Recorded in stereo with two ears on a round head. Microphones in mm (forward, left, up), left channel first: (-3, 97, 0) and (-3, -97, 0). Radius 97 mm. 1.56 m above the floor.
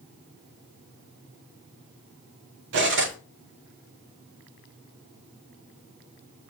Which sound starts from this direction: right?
Cutlery clinking, at 2.7 s.